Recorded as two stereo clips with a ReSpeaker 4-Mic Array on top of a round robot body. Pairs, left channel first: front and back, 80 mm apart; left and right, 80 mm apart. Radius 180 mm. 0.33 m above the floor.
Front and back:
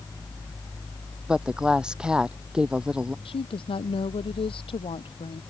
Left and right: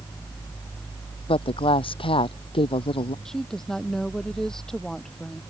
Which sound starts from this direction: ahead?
A woman speaking, at 3.2 s.